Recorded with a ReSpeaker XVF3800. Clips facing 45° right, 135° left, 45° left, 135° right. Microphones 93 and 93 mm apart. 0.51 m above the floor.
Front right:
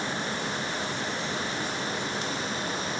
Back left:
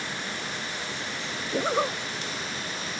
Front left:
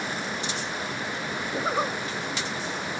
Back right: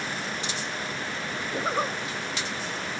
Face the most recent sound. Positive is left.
turn(degrees=130)